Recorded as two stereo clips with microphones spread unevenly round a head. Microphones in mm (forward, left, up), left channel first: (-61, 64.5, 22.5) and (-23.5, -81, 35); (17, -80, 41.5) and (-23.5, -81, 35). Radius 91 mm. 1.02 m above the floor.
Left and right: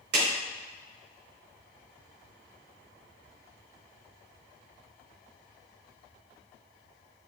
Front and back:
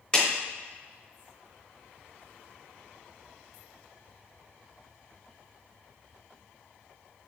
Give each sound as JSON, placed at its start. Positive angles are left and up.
{"t": 0.1, "sound": "a clap", "azimuth_deg": -65, "distance_m": 3.5}